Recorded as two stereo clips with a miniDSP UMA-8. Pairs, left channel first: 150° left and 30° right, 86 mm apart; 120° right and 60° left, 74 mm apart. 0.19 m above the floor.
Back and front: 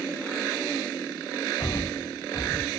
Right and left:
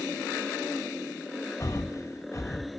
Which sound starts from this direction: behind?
Breathing, at 1.6 s.